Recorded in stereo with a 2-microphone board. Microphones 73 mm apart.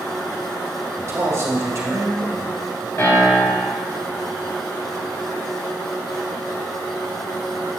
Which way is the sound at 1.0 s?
40° right (ahead or behind).